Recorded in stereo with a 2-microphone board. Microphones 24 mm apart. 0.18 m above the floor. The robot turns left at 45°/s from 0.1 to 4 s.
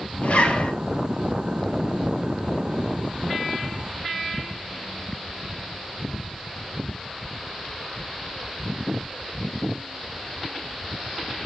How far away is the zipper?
About 1.3 m.